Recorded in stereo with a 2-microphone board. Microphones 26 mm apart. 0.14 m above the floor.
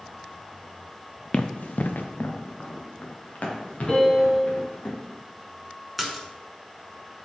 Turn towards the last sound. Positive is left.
turn(degrees=0)  # may be behind; listen again after turning